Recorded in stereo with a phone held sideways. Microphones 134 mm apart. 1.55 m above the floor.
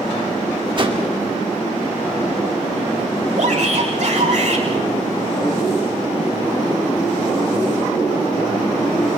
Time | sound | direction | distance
0.8 | a whoosh | 40° right (ahead or behind) | 3 m
3.4 | a shout | 65° right (ahead or behind) | 4.5 m